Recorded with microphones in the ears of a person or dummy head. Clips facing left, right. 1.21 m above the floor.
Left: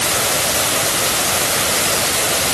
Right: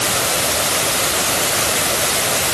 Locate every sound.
Only background noise.